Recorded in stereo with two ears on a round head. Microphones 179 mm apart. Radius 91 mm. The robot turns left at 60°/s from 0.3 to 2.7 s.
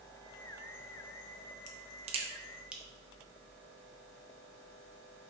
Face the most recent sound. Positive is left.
turn(degrees=-5)  # may be behind; listen again after turning